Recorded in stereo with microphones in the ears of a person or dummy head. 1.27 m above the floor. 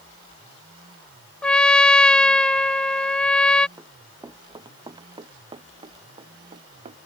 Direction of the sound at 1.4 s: 15° left (ahead or behind).